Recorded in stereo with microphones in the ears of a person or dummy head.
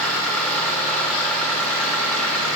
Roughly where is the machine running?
Centre.